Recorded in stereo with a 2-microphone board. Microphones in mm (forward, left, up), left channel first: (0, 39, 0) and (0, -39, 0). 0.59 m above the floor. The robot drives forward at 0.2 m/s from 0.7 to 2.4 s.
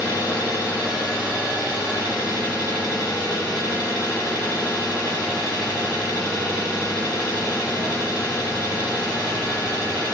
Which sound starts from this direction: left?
An engine running, at 0.0 s.